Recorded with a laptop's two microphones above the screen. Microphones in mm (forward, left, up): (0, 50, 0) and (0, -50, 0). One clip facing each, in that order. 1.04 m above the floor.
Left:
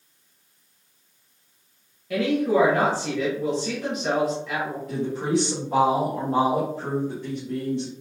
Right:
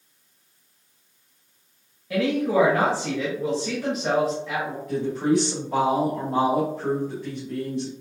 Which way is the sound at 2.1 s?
Centre (ahead or behind).